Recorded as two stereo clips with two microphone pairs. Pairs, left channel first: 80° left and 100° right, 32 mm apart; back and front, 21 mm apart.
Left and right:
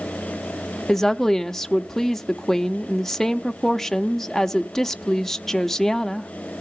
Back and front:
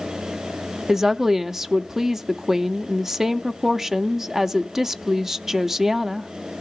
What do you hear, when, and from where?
0.9 s a woman speaking: 15° left, 0.7 m